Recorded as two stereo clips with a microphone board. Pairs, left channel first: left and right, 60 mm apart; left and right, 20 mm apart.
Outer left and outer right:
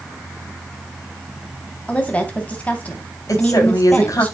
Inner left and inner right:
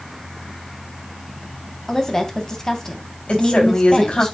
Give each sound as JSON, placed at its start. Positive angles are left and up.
{"t": 1.9, "sound": "a woman speaking", "side_deg": 20, "distance_m": 3.0}
{"t": 3.3, "sound": "a woman speaking", "side_deg": 65, "distance_m": 3.5}